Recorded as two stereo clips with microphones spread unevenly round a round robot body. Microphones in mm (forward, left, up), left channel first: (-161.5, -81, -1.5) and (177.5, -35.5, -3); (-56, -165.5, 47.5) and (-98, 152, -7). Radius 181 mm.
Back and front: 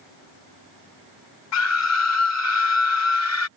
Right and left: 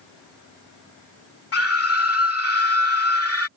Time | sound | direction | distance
1.5 | a scream | 130° right | ?